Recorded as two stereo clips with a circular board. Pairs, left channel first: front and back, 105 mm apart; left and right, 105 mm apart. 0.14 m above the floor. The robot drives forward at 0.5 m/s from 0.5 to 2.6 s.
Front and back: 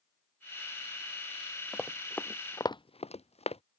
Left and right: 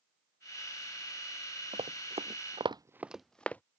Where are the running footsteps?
85° right; by 3.6 s 15° left.